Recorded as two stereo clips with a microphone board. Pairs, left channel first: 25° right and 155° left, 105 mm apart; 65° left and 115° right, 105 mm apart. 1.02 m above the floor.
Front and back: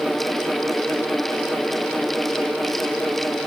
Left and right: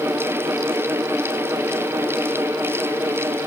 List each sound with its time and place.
Only background noise.